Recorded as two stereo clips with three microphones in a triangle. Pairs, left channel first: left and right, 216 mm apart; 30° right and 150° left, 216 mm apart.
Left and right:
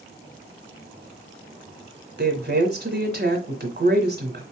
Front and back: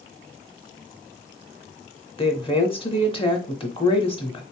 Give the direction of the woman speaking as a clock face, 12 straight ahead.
3 o'clock.